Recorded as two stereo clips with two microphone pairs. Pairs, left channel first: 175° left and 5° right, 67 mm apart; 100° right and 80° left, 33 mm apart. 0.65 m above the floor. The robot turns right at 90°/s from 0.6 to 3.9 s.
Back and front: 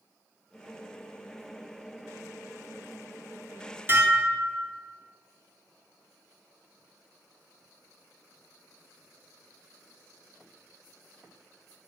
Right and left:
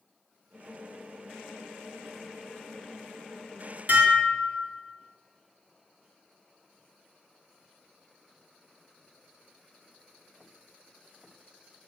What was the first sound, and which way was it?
Dishes clattering, 50° left.